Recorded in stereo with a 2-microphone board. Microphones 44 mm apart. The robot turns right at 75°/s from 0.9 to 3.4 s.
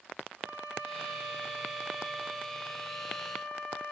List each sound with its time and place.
0.4 s a violin: 95° right, 2 m; by 3.9 s 95° left, 2 m